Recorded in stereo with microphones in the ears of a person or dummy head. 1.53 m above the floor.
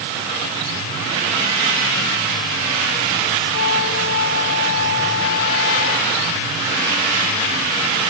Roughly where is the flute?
Left.